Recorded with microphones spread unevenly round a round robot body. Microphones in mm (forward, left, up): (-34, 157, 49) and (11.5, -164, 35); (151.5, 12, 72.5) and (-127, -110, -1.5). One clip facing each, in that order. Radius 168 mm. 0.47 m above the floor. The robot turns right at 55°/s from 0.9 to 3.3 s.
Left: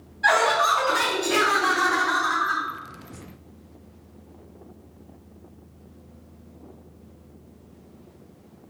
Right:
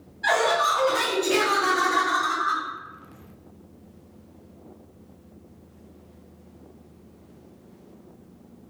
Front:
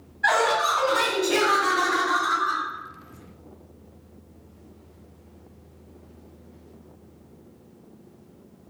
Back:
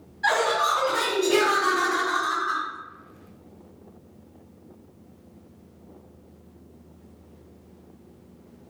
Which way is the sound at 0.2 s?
170° left.